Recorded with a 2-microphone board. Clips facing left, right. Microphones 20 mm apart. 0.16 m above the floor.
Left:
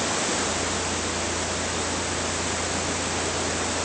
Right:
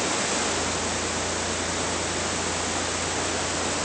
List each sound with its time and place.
Only background noise.